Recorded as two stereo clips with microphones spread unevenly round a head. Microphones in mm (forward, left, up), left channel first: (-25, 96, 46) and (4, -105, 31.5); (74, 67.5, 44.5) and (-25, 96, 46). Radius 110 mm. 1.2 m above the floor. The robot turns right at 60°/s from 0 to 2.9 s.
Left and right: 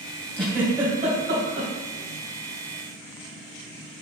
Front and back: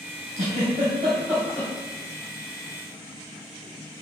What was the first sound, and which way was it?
A giggle, straight behind.